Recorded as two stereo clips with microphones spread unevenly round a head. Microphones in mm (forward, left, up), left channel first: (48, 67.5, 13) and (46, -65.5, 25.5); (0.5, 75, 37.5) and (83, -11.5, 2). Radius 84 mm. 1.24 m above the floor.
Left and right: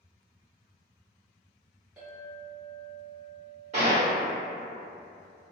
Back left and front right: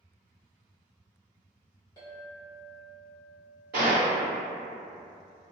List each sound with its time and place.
2.0 s a clink: 170° right, 0.6 m
3.7 s a gunshot: 75° right, 1.3 m